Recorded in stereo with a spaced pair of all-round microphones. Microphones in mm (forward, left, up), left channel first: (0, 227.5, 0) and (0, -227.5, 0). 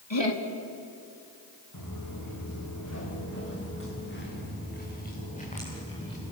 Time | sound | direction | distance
0.1 | laughter | 75° left (ahead or behind) | 3 m
1.7 | footsteps | 45° left (ahead or behind) | 6.5 m